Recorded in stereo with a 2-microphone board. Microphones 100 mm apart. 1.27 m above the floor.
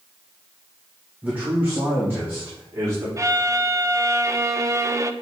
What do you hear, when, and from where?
1.2 s a man speaking: 15° right (ahead or behind), 1.5 m; by 3.1 s 25° right (ahead or behind), 4 m
3.2 s a violin: 30° right (ahead or behind), 0.6 m